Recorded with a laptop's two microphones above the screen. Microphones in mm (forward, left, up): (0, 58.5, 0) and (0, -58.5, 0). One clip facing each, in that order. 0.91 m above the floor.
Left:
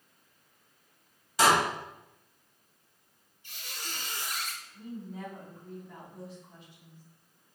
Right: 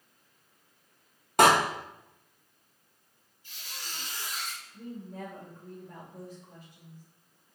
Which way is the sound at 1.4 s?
55° right (ahead or behind).